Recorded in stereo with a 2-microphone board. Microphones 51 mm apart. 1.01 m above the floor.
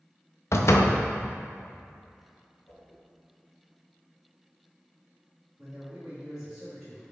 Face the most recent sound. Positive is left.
turn(degrees=-10)  # may be behind; listen again after turning